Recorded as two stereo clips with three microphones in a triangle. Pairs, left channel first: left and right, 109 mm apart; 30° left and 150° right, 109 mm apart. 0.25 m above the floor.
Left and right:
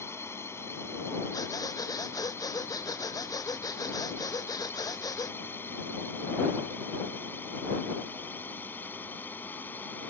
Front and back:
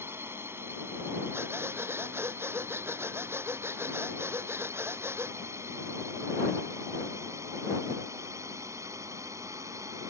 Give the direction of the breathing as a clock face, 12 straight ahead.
7 o'clock.